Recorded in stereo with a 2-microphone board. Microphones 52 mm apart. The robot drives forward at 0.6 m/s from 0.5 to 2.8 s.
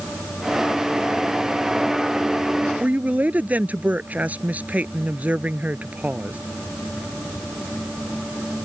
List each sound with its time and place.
2.8 s a woman speaking: 30° right (ahead or behind)